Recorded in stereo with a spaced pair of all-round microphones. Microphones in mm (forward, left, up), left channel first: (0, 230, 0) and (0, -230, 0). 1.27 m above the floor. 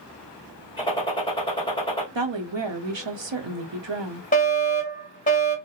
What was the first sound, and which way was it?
A gunshot, 10° left (ahead or behind).